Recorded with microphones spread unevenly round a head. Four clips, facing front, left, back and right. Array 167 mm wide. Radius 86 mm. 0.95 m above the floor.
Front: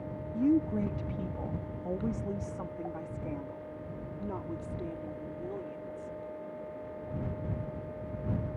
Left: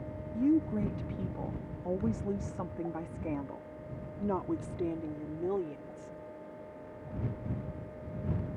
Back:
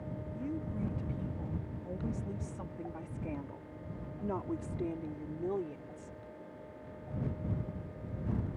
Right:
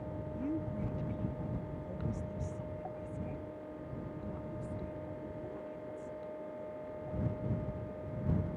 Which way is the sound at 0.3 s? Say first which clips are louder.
Left 11 dB, front 13 dB; 35° left.